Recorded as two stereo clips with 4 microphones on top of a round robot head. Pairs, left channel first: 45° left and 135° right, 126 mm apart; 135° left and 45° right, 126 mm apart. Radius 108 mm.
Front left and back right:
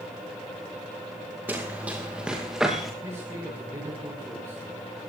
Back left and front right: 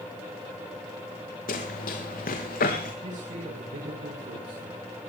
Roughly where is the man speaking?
Right.